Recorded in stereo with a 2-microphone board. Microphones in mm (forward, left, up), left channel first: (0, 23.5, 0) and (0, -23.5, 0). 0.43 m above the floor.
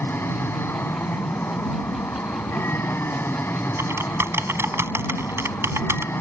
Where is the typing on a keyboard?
65° right (ahead or behind).